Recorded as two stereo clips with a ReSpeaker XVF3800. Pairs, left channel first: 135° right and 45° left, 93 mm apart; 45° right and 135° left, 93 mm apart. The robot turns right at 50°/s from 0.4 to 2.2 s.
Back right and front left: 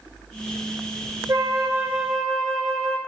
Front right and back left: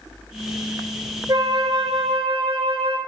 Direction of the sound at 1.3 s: 90° left.